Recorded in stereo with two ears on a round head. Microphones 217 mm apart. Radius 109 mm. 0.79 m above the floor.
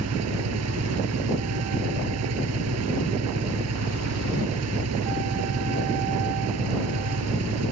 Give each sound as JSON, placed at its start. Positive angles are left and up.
{"t": 0.0, "sound": "an engine running", "side_deg": -70}